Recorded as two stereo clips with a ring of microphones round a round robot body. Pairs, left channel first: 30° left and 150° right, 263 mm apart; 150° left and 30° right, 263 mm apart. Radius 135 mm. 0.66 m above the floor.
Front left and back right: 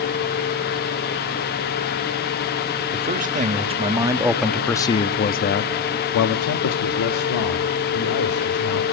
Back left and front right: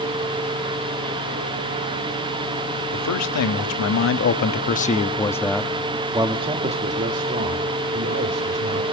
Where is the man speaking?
155° left, 1.4 m; by 8.8 s 20° left, 2.5 m.